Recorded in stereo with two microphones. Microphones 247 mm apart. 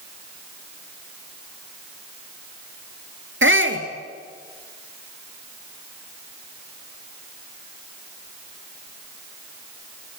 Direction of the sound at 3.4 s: 55° right (ahead or behind).